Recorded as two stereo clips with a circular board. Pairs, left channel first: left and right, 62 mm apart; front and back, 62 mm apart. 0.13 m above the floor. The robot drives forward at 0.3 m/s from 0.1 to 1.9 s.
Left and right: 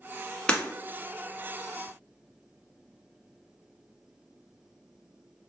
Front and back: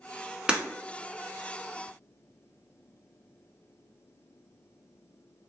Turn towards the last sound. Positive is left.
turn(degrees=160)